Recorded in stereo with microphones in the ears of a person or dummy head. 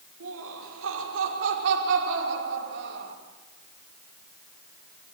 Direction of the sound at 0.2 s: 85° right.